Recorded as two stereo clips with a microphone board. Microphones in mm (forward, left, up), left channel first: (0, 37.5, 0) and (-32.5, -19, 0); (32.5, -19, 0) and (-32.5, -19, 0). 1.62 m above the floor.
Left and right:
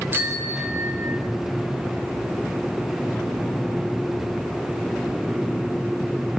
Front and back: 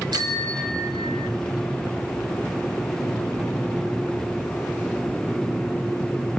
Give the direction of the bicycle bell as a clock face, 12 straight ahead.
6 o'clock.